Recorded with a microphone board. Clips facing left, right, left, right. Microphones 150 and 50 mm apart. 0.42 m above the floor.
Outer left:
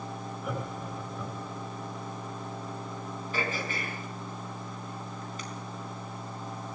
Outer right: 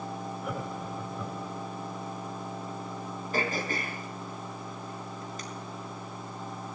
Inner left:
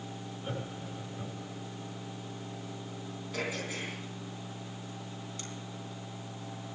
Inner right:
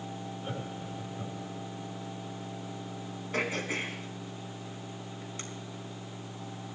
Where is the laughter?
Centre (ahead or behind), 6.5 m.